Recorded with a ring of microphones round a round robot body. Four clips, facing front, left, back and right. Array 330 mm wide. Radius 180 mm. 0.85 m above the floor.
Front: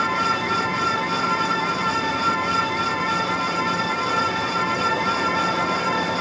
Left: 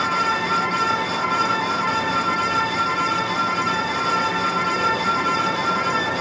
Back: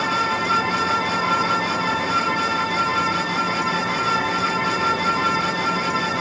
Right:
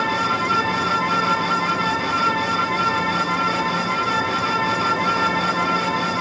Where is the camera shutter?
I don't hear a camera shutter.